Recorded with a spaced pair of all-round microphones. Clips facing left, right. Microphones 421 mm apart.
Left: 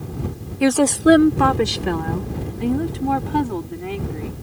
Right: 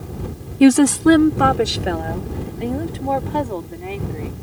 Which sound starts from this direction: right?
A woman speaking, at 0.6 s.